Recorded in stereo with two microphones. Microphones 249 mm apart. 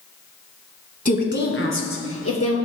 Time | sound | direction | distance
1.1 | a woman speaking | 30° left (ahead or behind) | 1.3 m